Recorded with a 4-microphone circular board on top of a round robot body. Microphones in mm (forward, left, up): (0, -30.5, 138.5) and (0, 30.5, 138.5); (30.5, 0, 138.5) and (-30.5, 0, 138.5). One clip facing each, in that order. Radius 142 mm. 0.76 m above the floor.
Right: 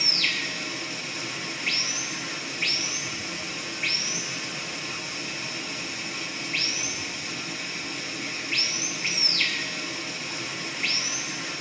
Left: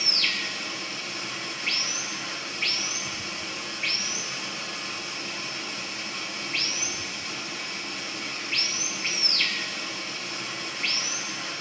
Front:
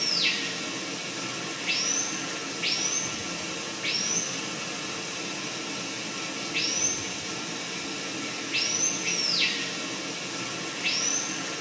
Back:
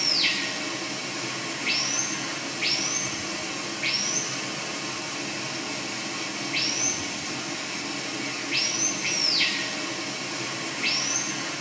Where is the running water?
160° right, 5 m.